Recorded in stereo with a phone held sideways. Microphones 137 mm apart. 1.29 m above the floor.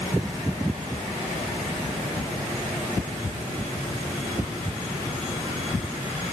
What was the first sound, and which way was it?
Only background noise.